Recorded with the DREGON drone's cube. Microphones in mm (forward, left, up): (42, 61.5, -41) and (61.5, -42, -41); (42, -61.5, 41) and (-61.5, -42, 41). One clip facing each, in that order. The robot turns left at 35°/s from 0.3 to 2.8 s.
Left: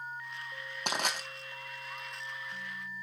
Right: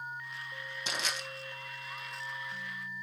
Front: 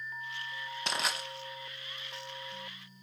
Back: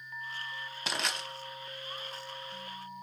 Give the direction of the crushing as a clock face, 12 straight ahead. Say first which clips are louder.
Left 5 dB, front 1 dB; 9 o'clock.